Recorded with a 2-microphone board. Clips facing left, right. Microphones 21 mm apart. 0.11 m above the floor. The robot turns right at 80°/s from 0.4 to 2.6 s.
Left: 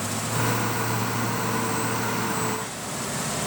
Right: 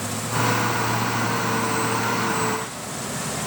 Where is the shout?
No shout in this recording.